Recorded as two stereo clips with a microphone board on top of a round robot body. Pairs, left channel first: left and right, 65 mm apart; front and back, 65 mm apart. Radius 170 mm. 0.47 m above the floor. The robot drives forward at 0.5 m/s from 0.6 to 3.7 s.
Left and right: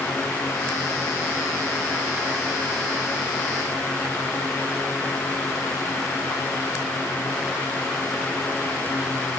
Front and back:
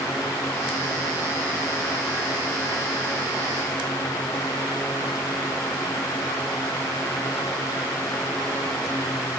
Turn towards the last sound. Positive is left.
No sound to turn to.